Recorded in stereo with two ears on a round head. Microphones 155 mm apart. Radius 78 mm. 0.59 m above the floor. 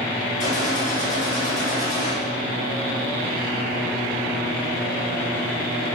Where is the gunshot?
45° left (ahead or behind), 3 m.